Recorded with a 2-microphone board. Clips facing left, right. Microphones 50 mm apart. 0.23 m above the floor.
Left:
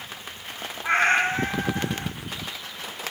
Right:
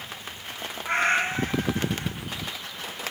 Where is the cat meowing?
40° left (ahead or behind), 2 m.